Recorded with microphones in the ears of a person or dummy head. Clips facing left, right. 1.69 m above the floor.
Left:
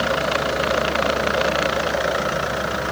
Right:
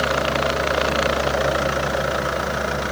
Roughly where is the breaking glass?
No breaking glass in this recording.